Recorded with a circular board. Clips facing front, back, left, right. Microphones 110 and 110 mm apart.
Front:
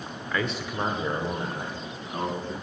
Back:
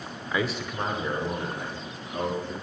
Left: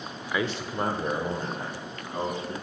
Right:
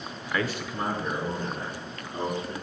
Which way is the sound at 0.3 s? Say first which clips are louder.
Back 1 dB, left 1 dB; 155° left.